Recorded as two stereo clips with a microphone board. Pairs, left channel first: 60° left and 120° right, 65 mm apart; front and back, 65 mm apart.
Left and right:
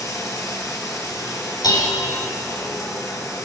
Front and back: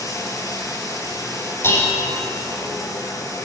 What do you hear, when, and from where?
0.0 s running water: 25° left, 4.5 m
1.6 s dishes clattering: 50° left, 5.5 m